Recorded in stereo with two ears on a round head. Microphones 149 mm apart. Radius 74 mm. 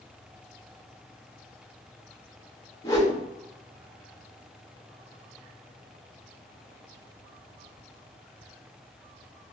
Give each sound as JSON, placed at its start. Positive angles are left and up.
{"t": 2.8, "sound": "a whoosh", "side_deg": 20, "distance_m": 1.0}